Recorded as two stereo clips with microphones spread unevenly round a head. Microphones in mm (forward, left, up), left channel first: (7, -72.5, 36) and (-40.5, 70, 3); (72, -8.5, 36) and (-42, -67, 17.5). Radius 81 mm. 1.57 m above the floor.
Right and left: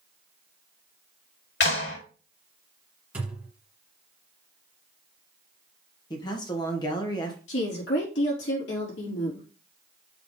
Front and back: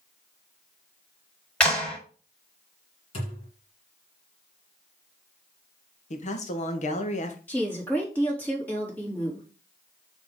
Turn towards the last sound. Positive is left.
turn(degrees=-50)